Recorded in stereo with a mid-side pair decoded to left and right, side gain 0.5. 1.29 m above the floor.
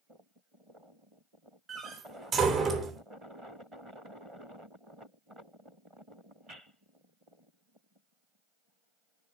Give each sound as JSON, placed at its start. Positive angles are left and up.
{"t": 1.7, "sound": "a door slam", "azimuth_deg": -50, "distance_m": 3.0}